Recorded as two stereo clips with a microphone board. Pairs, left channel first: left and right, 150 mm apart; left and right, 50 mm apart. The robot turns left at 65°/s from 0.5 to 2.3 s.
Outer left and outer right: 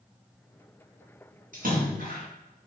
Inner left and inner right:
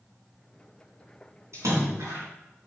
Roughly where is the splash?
Ahead right.